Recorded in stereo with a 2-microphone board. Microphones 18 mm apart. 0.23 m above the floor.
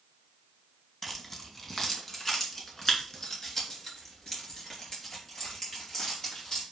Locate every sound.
1.0 s keys jangling: 20° left (ahead or behind), 1.4 m; by 6.6 s 35° left (ahead or behind), 4.5 m